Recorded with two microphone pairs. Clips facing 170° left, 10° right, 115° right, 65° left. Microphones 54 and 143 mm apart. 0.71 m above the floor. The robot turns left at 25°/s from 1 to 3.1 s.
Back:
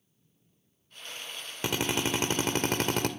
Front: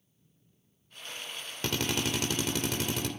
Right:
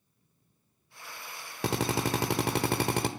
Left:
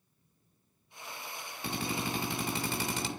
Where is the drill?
115° right, 1.5 m; by 3.1 s 155° right, 1.5 m.